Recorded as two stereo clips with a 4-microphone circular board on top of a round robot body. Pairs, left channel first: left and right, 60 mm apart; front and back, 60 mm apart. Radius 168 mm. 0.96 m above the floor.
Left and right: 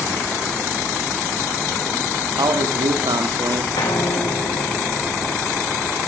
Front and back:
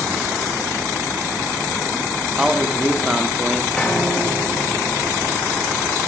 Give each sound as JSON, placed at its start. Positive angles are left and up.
{"t": 2.4, "sound": "a man speaking", "azimuth_deg": -95, "distance_m": 2.5}
{"t": 3.8, "sound": "a piano", "azimuth_deg": 80, "distance_m": 4.0}